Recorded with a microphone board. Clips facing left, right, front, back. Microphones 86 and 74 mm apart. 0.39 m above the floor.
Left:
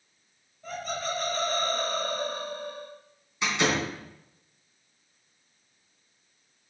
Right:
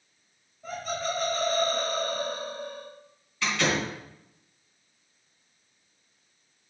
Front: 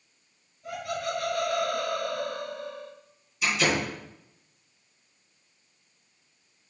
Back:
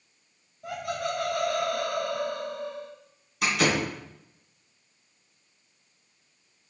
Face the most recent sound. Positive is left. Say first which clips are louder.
# left 1 dB, back 1 dB
turn(degrees=160)